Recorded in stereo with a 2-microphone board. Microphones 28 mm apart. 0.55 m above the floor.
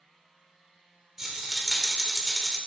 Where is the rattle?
10° right (ahead or behind), 1.3 m.